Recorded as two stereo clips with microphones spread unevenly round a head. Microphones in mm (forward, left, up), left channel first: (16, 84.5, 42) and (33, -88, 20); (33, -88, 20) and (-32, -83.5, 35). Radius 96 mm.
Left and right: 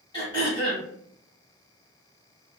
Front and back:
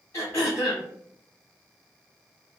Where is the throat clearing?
65° left, 1.3 m.